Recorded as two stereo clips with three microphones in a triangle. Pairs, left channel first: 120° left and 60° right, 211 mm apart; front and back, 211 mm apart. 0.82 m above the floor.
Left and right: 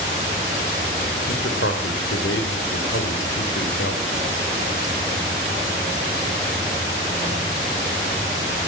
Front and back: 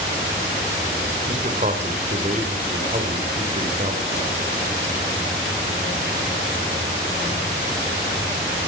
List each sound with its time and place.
1.3 s a man speaking: 130° left, 2.5 m